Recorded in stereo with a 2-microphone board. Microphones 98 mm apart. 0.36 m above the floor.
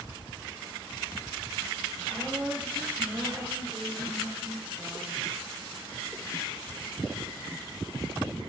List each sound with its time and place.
2.1 s a woman speaking: 20° right (ahead or behind), 5.5 m